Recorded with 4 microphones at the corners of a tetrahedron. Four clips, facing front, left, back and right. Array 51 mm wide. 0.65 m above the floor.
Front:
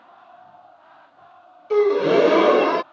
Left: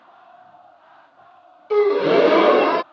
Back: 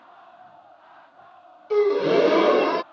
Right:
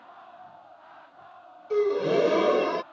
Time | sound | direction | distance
1.7 | a gasp | 75° left | ?